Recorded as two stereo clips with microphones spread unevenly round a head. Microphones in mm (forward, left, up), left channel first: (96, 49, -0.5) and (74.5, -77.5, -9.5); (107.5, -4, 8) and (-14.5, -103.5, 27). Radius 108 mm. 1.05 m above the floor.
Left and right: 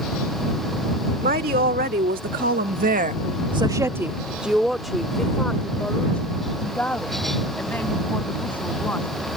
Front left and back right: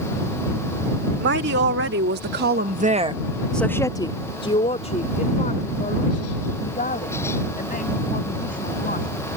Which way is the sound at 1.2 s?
145° right.